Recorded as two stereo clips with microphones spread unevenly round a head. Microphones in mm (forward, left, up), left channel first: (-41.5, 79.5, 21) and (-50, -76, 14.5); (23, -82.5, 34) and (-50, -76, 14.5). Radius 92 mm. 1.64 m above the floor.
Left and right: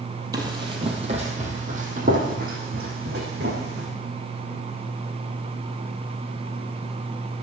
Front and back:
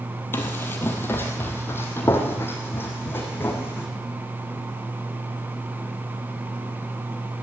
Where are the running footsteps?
25° right, 2 m; by 3.9 s 55° right, 4.5 m.